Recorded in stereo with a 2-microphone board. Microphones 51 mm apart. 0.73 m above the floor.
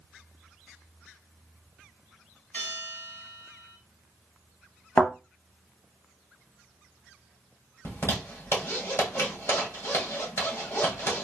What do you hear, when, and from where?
2.5 s a bell: 50° left (ahead or behind), 3 m
5.0 s a thud: 30° left (ahead or behind), 1.8 m
7.8 s a zipper: 70° left (ahead or behind), 2.5 m